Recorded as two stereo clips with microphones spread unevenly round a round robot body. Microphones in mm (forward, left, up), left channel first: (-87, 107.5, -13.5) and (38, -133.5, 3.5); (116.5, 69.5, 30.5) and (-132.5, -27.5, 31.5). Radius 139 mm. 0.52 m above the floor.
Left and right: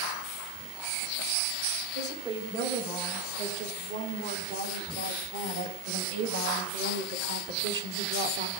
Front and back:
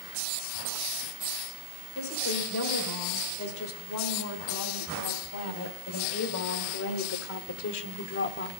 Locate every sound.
1.9 s a woman speaking: 15° right, 4.5 m; by 8.5 s 5° right, 1.0 m